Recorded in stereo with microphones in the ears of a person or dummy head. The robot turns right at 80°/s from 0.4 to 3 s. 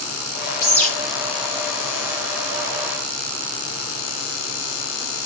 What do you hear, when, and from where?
0.6 s a bird: 20° left (ahead or behind), 1.0 m; by 0.9 s 5° left (ahead or behind), 1.0 m